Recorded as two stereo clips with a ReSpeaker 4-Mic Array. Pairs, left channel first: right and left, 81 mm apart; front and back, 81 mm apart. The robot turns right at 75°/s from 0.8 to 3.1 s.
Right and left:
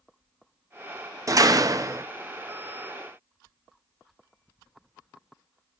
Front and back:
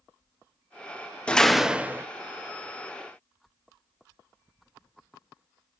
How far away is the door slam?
About 0.5 m.